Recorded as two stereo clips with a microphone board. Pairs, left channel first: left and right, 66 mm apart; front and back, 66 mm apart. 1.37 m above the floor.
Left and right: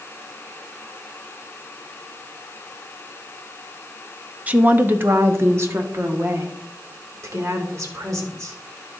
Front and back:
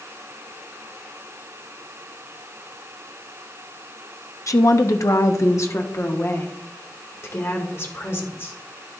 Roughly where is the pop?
No pop in this recording.